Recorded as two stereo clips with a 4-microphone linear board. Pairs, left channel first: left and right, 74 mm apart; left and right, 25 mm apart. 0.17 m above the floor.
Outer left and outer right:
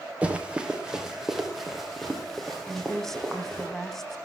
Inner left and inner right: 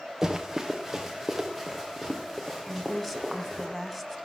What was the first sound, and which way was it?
Running footsteps, 15° right (ahead or behind).